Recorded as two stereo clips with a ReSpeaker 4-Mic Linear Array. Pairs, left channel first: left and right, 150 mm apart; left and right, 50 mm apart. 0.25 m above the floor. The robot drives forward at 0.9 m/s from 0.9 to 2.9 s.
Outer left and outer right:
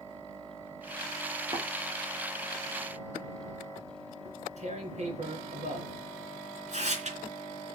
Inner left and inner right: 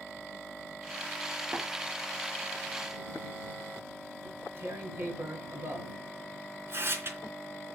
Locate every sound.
1.5 s tapping: 30° right (ahead or behind), 4 m
4.2 s tearing paper: 50° right (ahead or behind), 3.5 m